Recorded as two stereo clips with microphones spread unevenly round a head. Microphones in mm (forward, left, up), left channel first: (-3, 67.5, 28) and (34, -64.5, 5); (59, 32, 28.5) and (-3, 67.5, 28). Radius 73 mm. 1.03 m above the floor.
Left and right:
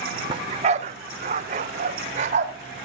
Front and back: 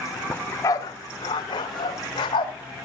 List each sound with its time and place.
0.3 s a dog barking: 70° right, 0.5 m; by 2.5 s 35° right, 1.6 m